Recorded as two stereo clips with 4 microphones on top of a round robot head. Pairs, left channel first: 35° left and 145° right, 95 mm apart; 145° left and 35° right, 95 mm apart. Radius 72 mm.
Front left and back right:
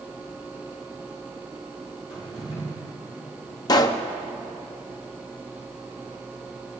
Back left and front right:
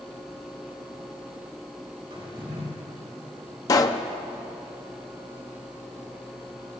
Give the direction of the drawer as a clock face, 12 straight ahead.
12 o'clock.